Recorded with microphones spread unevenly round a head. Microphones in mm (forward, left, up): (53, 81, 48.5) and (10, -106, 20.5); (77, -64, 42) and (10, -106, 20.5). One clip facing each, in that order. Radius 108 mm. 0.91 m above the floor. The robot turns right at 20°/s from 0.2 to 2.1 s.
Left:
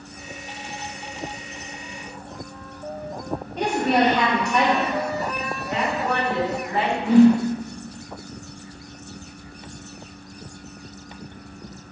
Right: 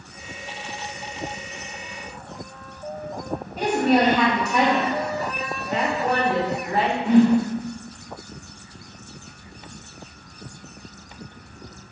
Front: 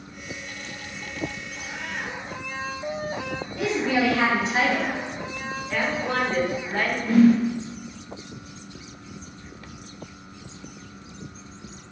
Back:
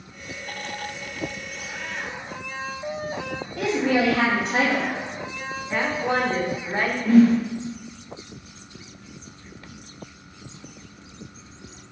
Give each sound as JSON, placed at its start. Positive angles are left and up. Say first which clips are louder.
{"t": 3.6, "sound": "a woman speaking", "louder": "right 2 dB, back 2 dB", "azimuth_deg": 175, "distance_m": 0.8}
{"t": 5.7, "sound": "a woman speaking", "louder": "right 2 dB, back 2 dB", "azimuth_deg": -110, "distance_m": 0.8}
{"t": 7.0, "sound": "a whoosh", "louder": "left 3 dB, back 1 dB", "azimuth_deg": -175, "distance_m": 0.9}